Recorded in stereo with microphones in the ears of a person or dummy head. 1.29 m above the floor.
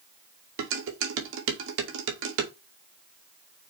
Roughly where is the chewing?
No chewing in this recording.